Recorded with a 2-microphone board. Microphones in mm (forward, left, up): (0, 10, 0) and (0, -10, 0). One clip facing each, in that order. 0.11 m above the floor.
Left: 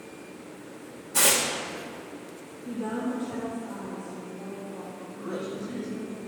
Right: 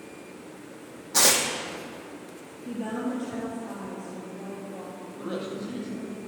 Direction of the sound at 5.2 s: 65° right (ahead or behind).